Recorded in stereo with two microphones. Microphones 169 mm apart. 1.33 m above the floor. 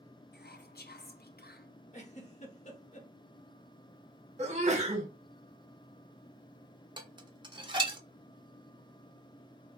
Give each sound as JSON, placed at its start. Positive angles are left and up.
{"t": 0.3, "sound": "whispering", "side_deg": 65, "distance_m": 0.6}
{"t": 1.9, "sound": "a giggle", "side_deg": 45, "distance_m": 0.8}
{"t": 4.4, "sound": "a sneeze", "side_deg": -40, "distance_m": 0.8}
{"t": 7.0, "sound": "dishes clattering", "side_deg": -30, "distance_m": 0.6}